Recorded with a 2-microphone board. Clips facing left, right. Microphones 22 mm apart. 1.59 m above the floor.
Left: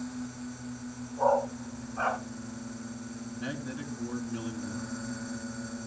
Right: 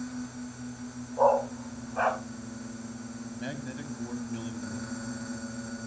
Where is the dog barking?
75° right (ahead or behind), 5 m.